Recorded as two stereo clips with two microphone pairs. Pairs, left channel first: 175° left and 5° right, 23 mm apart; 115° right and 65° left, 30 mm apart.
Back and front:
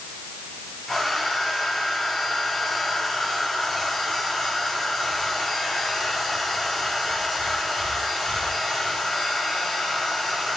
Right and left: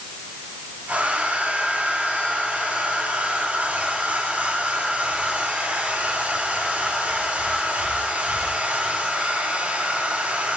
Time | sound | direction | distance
0.9 | a hair dryer | 100° left | 4 m